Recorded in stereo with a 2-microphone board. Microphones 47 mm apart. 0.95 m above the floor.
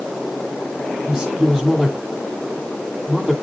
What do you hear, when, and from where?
1.1 s a man speaking: 15° right (ahead or behind), 8.5 m